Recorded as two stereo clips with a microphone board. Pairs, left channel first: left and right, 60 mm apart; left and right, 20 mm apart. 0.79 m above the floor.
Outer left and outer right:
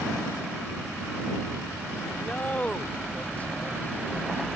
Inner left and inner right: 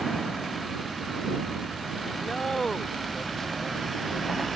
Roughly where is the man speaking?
Left.